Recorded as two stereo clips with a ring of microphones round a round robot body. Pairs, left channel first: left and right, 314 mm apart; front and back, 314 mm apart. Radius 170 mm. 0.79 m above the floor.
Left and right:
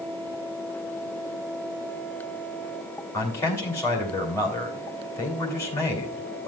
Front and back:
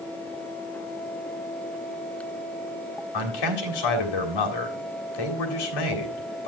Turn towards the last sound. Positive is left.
turn(degrees=5)